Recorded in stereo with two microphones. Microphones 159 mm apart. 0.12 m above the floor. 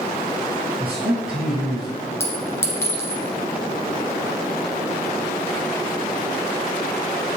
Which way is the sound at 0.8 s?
5° right (ahead or behind).